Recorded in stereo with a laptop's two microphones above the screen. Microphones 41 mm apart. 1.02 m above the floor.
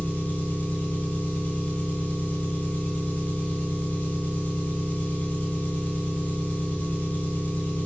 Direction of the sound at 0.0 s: 40° left (ahead or behind).